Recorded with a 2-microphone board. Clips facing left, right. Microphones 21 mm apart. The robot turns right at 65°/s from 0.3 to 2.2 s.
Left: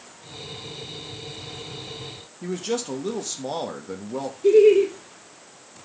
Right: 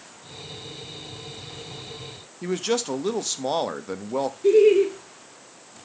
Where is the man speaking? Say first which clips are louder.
Right 3 dB; 25° right (ahead or behind), 0.8 m.